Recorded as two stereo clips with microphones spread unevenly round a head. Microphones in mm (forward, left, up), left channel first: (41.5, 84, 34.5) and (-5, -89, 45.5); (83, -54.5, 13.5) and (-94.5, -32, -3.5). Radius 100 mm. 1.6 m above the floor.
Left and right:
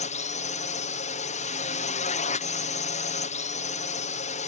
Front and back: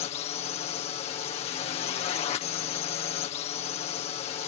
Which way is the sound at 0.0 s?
45° left.